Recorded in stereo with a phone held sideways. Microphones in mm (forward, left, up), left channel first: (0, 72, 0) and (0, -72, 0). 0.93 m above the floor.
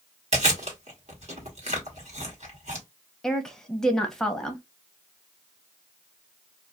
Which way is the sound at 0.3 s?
55° right (ahead or behind).